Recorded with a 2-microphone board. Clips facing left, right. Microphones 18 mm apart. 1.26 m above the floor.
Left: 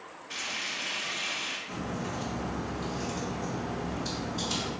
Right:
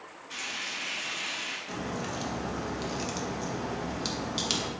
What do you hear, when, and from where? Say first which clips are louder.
0.3 s frying: left 1 dB; 10° left (ahead or behind), 1.5 m
1.7 s a crack: right 1 dB; 50° right (ahead or behind), 0.6 m